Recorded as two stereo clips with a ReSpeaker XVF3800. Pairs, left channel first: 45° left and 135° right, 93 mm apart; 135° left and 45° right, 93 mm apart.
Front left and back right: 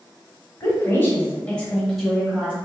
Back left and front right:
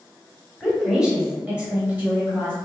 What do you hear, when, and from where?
0.6 s a woman speaking: 35° left, 1.4 m; by 2.5 s 85° right, 1.2 m